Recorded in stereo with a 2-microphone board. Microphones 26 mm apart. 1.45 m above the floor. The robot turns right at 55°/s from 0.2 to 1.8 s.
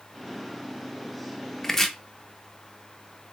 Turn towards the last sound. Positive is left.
turn(degrees=10)  # may be behind; listen again after turning